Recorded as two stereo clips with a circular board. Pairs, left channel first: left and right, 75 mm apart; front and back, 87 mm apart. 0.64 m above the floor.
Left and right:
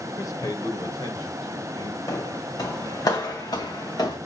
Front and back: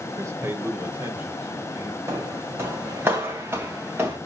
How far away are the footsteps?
About 2 m.